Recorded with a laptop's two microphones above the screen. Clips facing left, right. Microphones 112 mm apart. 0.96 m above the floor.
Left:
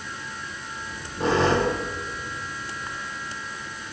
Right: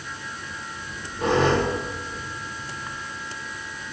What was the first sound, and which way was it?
A squeak, 30° left (ahead or behind).